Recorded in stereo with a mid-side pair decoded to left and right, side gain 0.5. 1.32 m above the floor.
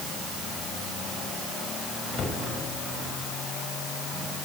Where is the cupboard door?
50° left, 5 m.